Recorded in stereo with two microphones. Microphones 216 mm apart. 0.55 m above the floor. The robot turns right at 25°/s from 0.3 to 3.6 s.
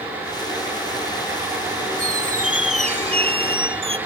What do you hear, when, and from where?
2.0 s a squeak: 85° right, 0.6 m; by 4.0 s 45° right, 0.6 m